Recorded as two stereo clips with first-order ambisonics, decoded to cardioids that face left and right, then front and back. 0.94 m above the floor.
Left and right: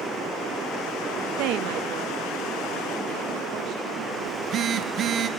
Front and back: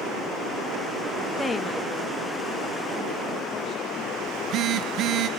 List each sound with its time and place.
1.4 s a woman speaking: 90° right, 0.6 m; by 4.2 s 50° right, 4 m
4.3 s a phone buzzing: 140° right, 0.6 m